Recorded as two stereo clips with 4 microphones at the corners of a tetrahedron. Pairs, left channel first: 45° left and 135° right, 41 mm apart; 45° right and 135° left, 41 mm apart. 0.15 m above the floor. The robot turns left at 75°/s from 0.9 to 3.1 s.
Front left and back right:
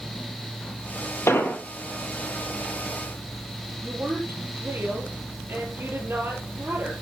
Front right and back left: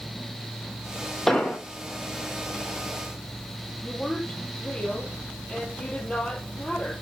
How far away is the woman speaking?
About 5 m.